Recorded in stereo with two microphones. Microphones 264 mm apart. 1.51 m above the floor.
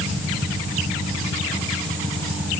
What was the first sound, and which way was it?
Only background noise.